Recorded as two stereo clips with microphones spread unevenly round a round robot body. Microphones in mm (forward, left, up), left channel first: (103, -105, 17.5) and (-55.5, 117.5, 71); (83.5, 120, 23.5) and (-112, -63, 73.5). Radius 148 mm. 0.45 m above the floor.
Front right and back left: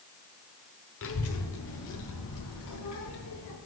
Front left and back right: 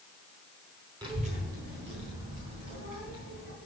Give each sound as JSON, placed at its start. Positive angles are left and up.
{"t": 1.0, "sound": "a child speaking", "azimuth_deg": -55, "distance_m": 1.0}